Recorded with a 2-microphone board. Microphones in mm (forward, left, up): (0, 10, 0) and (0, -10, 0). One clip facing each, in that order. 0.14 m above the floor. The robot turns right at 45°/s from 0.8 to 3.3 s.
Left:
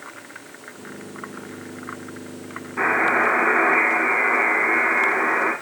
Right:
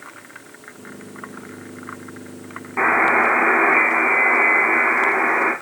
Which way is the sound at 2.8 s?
45° right (ahead or behind).